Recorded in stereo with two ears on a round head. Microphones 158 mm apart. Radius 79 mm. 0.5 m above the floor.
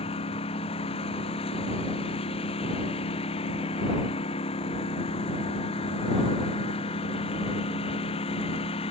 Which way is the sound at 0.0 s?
35° left (ahead or behind).